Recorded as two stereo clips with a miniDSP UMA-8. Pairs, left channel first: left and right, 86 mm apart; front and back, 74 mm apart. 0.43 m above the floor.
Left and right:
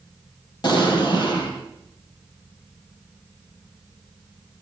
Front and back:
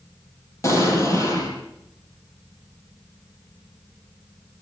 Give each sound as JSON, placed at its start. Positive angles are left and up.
{"t": 0.6, "sound": "an explosion", "azimuth_deg": 50, "distance_m": 6.0}